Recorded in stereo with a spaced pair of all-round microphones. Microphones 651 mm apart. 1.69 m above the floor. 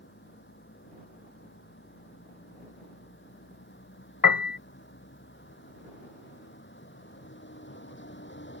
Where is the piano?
35° left (ahead or behind).